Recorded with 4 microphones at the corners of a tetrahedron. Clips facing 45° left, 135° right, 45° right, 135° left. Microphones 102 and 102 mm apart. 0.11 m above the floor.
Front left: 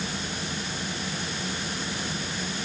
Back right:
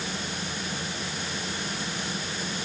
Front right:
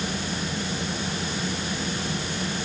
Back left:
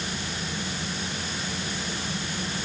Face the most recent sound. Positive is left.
No sound to turn to.